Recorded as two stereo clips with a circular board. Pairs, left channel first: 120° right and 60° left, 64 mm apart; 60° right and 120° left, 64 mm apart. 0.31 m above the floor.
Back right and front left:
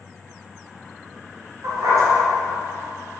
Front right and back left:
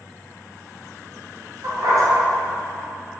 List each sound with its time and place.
1.6 s a dog barking: 90° left, 1.8 m